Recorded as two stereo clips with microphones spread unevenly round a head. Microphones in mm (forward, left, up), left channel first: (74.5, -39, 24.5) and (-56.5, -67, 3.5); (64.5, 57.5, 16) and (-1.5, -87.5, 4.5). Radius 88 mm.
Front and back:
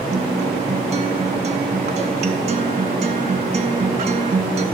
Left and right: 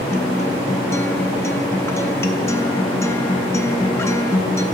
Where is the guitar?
135° left, 0.7 m.